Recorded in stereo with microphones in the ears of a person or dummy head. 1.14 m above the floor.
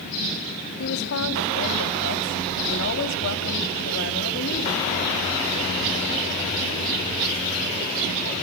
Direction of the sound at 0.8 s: 70° left (ahead or behind).